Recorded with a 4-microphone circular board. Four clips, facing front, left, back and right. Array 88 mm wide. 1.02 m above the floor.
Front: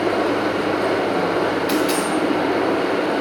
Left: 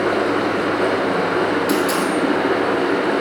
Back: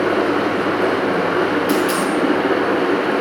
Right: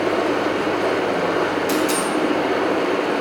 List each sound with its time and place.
0.0 s running water: 145° left, 2 m
1.7 s a dropped coin: 20° right, 2.5 m